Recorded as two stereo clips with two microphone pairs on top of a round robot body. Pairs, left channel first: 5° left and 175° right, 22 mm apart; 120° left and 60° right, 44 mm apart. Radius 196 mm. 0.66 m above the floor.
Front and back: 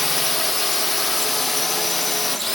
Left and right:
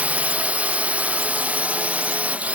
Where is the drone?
80° right.